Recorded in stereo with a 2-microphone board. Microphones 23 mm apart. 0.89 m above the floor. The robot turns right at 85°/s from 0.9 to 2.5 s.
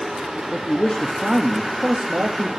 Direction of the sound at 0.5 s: 145° left.